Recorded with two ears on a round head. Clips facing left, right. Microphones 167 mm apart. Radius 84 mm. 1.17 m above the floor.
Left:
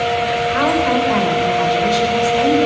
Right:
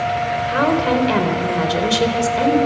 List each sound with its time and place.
0.5 s a woman speaking: 45° right (ahead or behind), 4 m